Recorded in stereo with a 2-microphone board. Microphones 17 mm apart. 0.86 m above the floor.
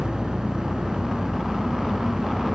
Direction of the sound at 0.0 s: 65° right (ahead or behind).